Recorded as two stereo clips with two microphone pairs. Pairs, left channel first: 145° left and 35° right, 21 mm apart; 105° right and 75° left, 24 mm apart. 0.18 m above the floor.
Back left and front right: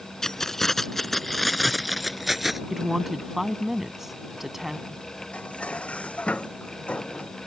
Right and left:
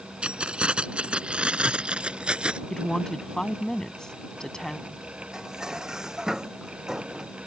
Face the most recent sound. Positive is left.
turn(degrees=135)